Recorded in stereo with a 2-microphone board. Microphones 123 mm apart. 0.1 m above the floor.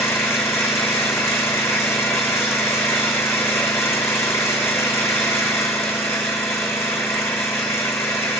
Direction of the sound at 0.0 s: 20° left (ahead or behind).